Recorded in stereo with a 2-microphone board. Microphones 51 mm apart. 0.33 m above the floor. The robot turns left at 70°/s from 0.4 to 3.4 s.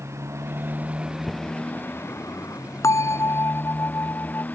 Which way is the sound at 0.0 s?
115° right.